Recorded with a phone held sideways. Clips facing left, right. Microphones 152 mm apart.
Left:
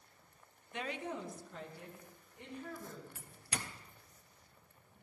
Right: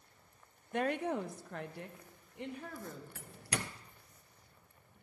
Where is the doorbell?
75° right (ahead or behind), 0.5 m.